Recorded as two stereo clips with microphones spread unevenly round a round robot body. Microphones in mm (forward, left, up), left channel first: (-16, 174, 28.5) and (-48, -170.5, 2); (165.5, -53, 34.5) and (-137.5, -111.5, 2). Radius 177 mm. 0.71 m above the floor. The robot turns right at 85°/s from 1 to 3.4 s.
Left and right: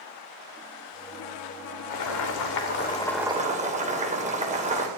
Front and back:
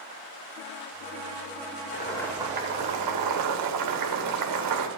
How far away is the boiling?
About 2.5 m.